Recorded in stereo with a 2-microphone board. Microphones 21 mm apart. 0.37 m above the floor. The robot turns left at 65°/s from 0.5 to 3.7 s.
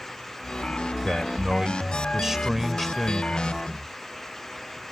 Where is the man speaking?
65° right; by 3.9 s 125° left.